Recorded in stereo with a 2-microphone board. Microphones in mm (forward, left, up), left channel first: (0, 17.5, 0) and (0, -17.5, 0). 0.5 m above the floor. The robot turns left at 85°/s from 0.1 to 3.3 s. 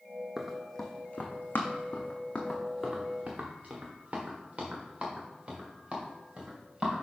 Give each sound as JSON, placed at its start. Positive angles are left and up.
{"t": 0.4, "sound": "running footsteps", "side_deg": -15, "distance_m": 1.2}